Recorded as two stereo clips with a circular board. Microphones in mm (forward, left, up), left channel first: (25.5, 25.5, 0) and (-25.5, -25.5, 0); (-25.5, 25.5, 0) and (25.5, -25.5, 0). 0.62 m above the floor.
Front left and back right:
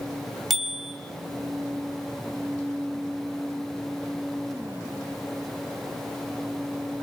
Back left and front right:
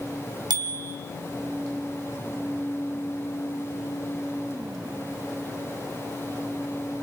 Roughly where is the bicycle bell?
Ahead right.